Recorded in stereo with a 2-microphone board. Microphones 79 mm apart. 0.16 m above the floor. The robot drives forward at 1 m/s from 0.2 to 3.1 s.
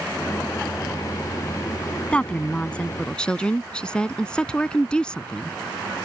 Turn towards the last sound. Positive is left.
turn(degrees=10)  # may be behind; listen again after turning